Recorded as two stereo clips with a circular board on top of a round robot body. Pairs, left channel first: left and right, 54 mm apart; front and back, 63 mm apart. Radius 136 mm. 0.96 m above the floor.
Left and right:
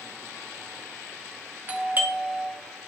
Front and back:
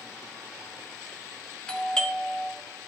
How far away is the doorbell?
About 1.5 m.